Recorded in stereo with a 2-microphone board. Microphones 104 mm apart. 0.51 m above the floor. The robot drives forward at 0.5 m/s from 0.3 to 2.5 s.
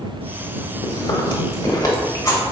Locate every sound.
0.8 s chewing: 50° left (ahead or behind), 0.7 m; by 2.4 s 25° left (ahead or behind), 1.3 m